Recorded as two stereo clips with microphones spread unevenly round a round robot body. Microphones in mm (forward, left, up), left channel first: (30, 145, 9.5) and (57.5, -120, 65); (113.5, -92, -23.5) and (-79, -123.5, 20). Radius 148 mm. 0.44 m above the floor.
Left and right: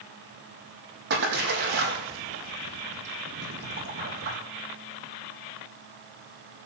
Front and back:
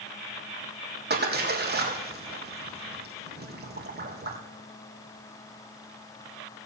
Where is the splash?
140° right, 3.5 m.